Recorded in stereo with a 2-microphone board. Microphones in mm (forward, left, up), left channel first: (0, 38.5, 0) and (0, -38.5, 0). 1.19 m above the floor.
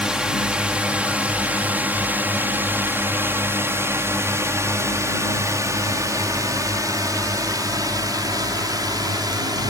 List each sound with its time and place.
0.0 s a drone: 10° right (ahead or behind); by 9.7 s 65° right (ahead or behind)